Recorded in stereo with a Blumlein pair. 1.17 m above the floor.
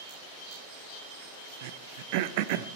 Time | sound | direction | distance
1.6 | throat clearing | 50° right | 0.7 m